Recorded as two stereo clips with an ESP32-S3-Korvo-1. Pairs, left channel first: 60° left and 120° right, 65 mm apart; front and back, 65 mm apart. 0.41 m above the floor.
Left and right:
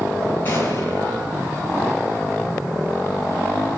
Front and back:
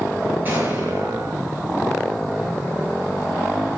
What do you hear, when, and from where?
0.5 s an explosion: 120° left, 7.5 m